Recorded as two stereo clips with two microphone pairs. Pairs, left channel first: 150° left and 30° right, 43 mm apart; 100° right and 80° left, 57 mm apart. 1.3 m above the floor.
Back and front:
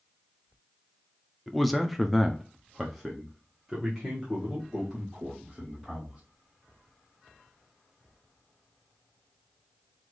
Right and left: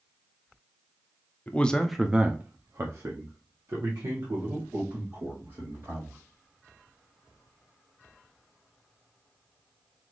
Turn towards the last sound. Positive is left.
turn(degrees=55)